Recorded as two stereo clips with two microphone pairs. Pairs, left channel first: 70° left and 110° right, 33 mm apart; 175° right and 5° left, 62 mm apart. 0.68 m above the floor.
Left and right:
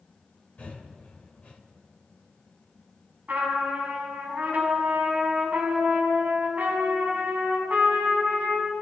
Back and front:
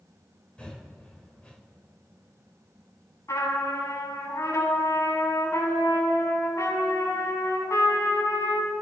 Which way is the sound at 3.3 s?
150° right.